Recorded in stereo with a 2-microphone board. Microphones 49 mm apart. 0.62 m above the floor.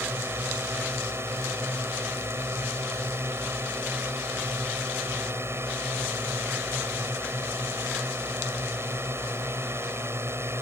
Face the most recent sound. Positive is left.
turn(degrees=-65)  # may be behind; listen again after turning